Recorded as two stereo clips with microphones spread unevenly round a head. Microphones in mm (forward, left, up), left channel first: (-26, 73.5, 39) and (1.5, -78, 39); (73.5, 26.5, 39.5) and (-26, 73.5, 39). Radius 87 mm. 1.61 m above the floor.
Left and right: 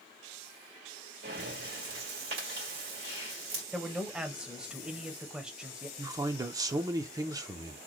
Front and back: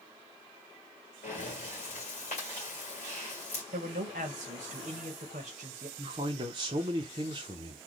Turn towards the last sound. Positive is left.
turn(degrees=-150)